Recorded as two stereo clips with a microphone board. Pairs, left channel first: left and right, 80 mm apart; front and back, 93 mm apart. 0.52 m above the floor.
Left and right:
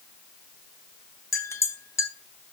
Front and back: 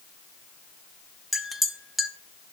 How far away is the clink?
About 0.7 m.